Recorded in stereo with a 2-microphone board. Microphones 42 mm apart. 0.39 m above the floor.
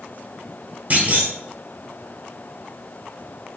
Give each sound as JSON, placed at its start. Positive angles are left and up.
{"t": 0.9, "sound": "a clunk", "side_deg": -35, "distance_m": 1.2}